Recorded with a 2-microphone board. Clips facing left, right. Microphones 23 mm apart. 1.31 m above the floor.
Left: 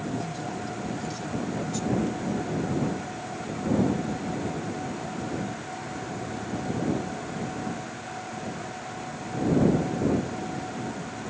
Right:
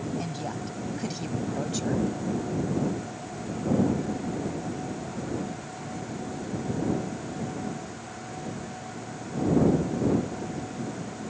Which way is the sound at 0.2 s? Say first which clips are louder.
Left 1 dB; 20° right (ahead or behind).